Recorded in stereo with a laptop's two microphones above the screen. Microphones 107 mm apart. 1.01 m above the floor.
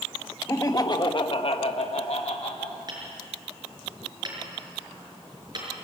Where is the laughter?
30° left (ahead or behind), 1.5 m; by 2.8 s 60° left (ahead or behind), 1.6 m.